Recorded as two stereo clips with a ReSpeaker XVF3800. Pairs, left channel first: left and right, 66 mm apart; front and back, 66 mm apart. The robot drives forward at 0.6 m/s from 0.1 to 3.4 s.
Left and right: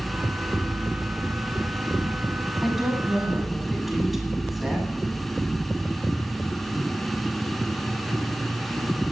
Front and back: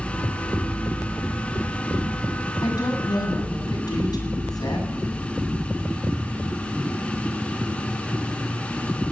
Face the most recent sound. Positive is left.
turn(degrees=0)